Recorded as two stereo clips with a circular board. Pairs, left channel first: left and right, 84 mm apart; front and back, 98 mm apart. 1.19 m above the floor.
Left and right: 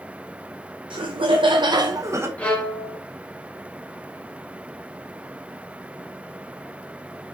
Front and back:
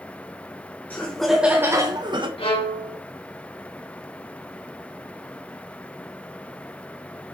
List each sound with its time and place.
0.9 s laughter: 70° right, 1.0 m; by 2.3 s 150° right, 1.0 m
2.4 s a violin: 15° left, 2 m